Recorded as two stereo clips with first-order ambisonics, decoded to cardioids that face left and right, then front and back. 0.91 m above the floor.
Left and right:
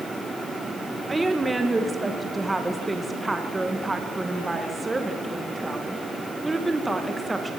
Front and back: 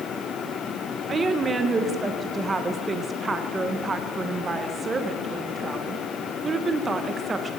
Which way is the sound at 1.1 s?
155° right.